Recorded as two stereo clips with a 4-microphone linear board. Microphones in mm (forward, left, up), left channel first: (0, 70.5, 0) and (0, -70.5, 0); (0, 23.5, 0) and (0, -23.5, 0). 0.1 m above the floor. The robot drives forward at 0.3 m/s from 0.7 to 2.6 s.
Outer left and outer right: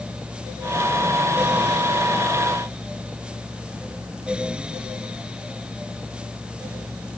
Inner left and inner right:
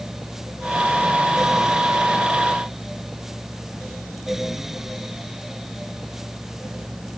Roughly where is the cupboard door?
I don't hear a cupboard door.